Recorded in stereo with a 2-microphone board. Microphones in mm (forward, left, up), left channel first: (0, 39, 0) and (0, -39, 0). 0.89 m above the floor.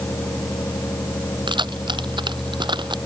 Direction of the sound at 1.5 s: 85° right.